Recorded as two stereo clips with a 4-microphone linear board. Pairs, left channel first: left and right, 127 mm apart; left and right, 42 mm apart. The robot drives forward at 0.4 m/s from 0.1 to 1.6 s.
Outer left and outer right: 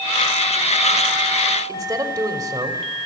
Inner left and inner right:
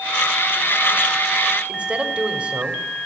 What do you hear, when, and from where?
1.7 s a man speaking: 25° right (ahead or behind), 3 m